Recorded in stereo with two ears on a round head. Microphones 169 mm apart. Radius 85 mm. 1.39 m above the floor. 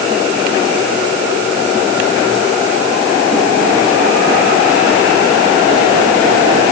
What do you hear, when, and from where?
Only background noise.